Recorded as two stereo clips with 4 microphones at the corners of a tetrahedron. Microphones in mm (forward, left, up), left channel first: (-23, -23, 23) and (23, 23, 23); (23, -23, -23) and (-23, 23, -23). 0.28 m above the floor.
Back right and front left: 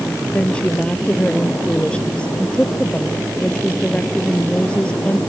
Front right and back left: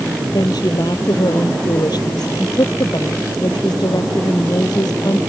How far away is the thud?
No thud in this recording.